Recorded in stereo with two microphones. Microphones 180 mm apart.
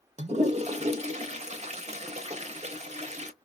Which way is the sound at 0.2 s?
35° right (ahead or behind).